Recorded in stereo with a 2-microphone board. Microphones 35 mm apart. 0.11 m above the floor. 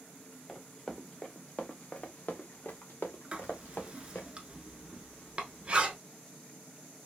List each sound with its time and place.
0.5 s running footsteps: 15° left (ahead or behind), 1.5 m; by 4.3 s 90° left, 1.7 m
3.3 s writing: 30° right (ahead or behind), 0.8 m